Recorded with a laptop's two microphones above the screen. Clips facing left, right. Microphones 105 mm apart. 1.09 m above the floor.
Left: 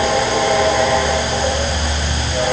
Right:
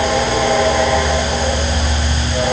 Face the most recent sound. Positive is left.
No sound to turn to.